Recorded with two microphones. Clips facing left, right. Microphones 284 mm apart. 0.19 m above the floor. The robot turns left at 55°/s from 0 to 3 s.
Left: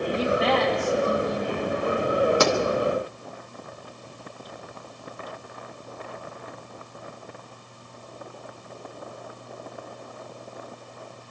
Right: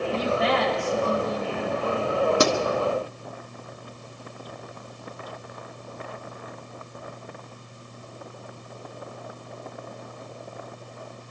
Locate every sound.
0.1 s a woman speaking: 125° left, 9.5 m; by 2.1 s 15° left, 9.5 m
2.4 s a pop: 35° right (ahead or behind), 1.5 m; by 2.5 s 40° right (ahead or behind), 1.5 m